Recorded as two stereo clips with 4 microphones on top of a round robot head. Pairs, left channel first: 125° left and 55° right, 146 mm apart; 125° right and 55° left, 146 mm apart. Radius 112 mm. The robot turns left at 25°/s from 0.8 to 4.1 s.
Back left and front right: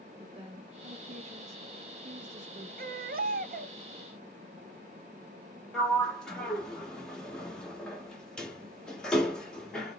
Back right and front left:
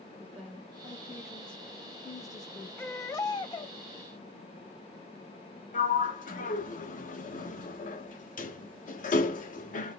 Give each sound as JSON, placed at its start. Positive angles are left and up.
{"t": 0.2, "sound": "a woman speaking", "azimuth_deg": -30, "distance_m": 1.3}
{"t": 2.8, "sound": "a baby crying", "azimuth_deg": -50, "distance_m": 0.9}
{"t": 5.7, "sound": "a sliding door", "azimuth_deg": -145, "distance_m": 1.3}